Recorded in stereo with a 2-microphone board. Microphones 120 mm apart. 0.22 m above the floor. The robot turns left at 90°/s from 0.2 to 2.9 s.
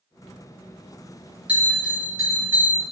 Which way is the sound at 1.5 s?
10° right (ahead or behind).